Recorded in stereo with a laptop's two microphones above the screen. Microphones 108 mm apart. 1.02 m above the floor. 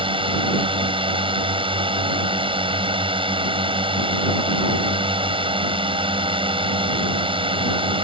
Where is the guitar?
I don't hear a guitar.